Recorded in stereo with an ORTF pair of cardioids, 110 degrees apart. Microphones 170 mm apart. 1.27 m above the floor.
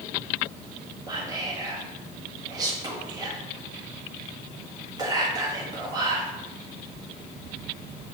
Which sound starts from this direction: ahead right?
Whispering, at 1.1 s.